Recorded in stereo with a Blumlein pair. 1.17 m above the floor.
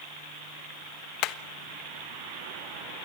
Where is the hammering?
40° left, 0.9 m.